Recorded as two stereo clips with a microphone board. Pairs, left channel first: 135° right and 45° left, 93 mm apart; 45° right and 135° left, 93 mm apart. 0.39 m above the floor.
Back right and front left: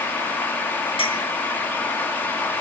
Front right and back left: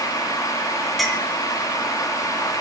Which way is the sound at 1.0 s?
135° right.